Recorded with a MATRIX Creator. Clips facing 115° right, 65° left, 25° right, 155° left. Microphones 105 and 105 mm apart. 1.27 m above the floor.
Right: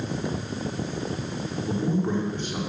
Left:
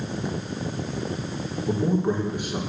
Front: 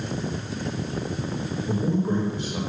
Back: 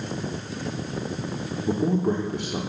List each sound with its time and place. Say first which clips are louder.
1.7 s a man speaking: left 3 dB, back 2 dB; 145° left, 3.5 m